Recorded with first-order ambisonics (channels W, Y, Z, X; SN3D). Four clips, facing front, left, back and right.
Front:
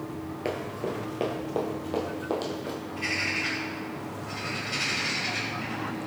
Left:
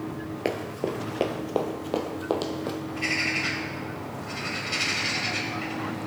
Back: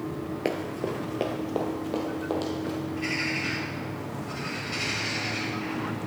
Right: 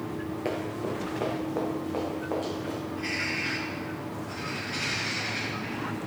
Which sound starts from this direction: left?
A bird, at 2.9 s.